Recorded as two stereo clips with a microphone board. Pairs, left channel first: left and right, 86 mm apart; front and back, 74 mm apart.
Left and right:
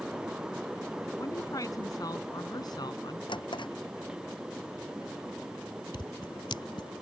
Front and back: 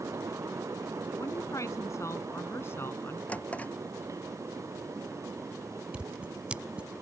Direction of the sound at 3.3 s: 70° left.